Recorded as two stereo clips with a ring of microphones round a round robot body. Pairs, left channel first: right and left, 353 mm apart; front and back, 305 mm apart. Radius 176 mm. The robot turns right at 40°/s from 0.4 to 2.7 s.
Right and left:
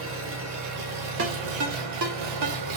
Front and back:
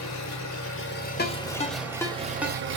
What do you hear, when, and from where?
0.0 s an engine running: 35° left, 1.0 m; by 2.8 s 125° left, 1.0 m
1.2 s a ringtone: 45° left, 0.9 m; by 2.6 s 105° left, 0.9 m